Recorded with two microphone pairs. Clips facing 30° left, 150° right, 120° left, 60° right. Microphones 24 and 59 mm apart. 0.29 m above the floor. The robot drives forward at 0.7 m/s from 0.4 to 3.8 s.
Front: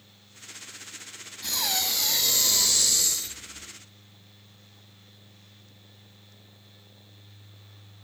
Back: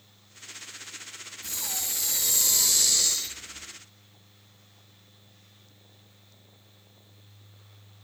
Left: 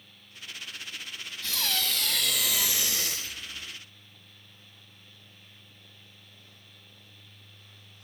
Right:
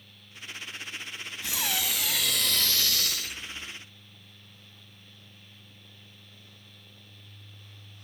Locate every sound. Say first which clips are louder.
1.4 s breathing: front 7 dB, even; 10° left, 1.1 m; by 3.7 s 160° left, 0.9 m